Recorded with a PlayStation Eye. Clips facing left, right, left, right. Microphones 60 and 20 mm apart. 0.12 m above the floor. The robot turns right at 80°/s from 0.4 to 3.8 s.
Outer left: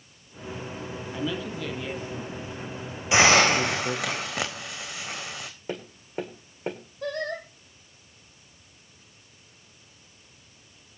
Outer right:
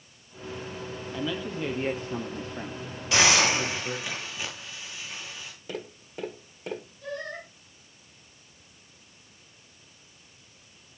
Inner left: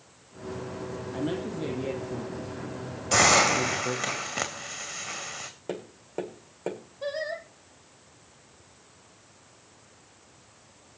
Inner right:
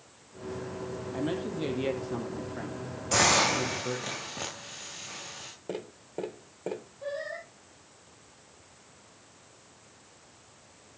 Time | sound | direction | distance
1.1 | a man speaking | 15° left (ahead or behind) | 4.5 m
3.1 | a hiss | 20° left | 3.5 m
5.7 | tapping | 30° left (ahead or behind) | 8.5 m
7.0 | singing | 65° left (ahead or behind) | 4 m